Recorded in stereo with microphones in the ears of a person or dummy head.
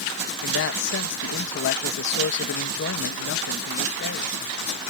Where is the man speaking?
60° left (ahead or behind).